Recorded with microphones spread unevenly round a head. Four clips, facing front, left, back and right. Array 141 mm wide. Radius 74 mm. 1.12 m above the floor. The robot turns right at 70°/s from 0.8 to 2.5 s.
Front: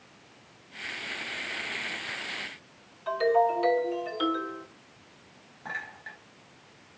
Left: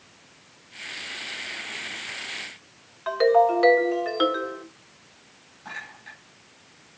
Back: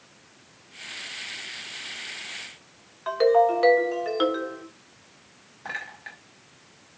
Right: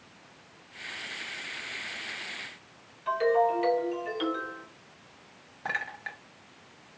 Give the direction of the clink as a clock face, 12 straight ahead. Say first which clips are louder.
Right 5 dB, back 2 dB; 4 o'clock.